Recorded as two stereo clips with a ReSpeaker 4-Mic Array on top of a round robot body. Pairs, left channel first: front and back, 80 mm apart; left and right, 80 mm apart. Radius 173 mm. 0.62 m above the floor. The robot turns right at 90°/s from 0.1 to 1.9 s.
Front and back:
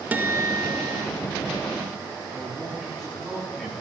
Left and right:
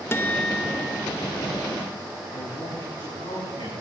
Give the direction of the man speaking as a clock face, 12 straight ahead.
9 o'clock.